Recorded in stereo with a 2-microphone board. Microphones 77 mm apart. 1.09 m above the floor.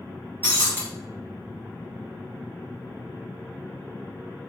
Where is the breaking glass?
30° left (ahead or behind), 1.3 m.